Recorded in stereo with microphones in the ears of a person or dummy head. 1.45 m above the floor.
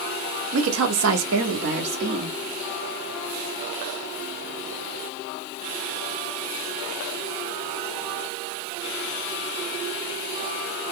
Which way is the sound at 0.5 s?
65° right (ahead or behind).